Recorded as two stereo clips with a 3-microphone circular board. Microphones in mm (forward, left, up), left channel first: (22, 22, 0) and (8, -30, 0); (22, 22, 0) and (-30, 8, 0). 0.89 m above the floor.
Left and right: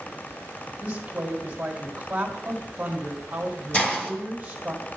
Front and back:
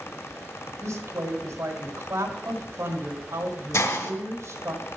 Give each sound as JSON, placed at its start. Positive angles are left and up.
{"t": 0.8, "sound": "a woman speaking", "azimuth_deg": -170, "distance_m": 2.0}
{"t": 3.7, "sound": "a hiss", "azimuth_deg": 10, "distance_m": 1.6}